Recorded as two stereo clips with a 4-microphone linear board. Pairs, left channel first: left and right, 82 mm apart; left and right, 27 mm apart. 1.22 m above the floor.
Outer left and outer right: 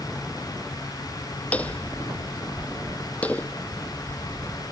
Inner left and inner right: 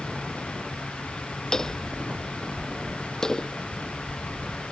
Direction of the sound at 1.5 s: 15° left (ahead or behind).